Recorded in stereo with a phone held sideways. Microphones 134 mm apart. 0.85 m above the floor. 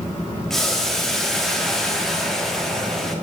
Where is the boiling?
5° left (ahead or behind), 1.4 m.